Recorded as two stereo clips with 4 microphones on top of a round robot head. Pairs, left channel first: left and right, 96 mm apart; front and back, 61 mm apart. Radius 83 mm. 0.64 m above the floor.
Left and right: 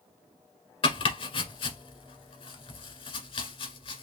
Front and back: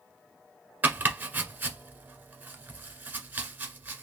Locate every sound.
0.8 s chopping: 115° left, 1.3 m